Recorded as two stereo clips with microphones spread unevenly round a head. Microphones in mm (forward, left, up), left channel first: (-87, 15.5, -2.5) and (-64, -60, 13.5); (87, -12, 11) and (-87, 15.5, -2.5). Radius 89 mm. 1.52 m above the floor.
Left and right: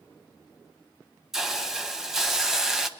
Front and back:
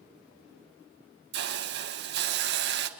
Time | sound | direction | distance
1.3 | a hiss | 155° right | 1.5 m